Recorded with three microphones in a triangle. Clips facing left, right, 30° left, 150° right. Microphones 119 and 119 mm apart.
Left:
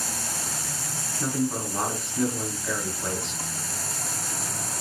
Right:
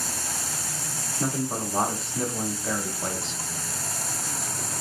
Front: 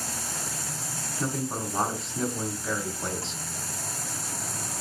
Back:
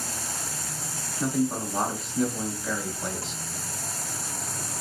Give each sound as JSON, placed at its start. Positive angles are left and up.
{"t": 1.2, "sound": "a man speaking", "azimuth_deg": -65, "distance_m": 1.1}